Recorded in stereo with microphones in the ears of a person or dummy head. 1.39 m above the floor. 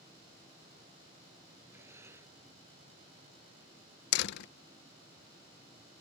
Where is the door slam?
60° left (ahead or behind).